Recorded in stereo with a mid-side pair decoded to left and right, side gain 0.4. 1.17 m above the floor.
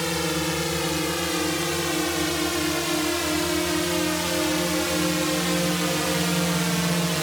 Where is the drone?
5° left; by 7.2 s 15° right.